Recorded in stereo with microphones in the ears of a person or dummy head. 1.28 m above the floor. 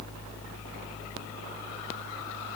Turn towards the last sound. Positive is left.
No sound to turn to.